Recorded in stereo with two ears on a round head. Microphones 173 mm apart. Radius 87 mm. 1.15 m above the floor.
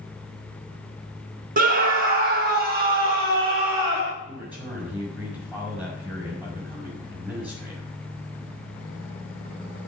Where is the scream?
45° right (ahead or behind), 0.8 m; by 4.1 s 55° right (ahead or behind), 2.5 m.